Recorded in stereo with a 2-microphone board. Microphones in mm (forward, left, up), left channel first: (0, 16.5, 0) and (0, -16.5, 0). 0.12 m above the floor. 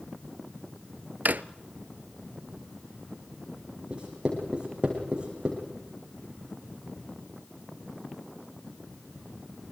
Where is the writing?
30° right (ahead or behind), 7.5 m.